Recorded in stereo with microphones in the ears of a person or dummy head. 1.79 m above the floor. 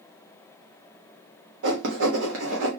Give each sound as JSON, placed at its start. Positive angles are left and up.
{"t": 1.6, "sound": "writing", "side_deg": -75, "distance_m": 1.0}